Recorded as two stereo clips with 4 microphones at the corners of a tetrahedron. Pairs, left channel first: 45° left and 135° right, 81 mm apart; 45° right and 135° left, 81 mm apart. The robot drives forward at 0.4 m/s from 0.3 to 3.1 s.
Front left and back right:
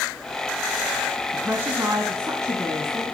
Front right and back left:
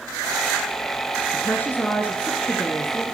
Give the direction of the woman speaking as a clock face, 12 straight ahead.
3 o'clock.